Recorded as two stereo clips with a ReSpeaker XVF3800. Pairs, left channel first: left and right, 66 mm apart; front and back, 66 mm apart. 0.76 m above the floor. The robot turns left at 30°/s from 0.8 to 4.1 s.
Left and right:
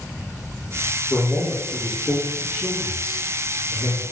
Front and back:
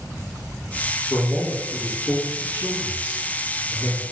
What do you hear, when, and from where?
1.1 s a man speaking: 40° left, 1.0 m; by 4.0 s 50° right, 1.0 m